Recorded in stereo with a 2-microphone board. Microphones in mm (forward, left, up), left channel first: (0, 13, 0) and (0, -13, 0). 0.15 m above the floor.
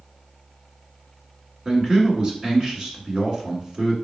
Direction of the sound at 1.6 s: 30° right (ahead or behind).